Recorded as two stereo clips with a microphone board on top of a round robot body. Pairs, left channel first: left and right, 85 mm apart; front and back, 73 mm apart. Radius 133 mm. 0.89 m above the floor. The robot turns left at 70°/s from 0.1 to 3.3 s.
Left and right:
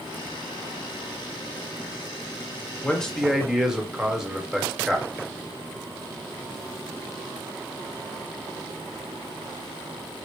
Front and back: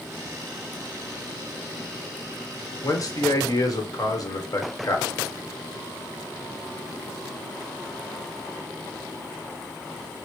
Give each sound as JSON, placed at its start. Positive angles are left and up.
{"t": 2.8, "sound": "a man speaking", "azimuth_deg": 25, "distance_m": 1.3}